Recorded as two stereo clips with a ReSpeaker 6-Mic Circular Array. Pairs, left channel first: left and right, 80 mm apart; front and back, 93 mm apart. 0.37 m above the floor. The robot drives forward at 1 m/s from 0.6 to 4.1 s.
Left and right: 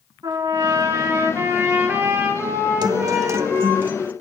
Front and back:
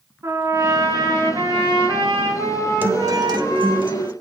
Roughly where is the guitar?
Behind right.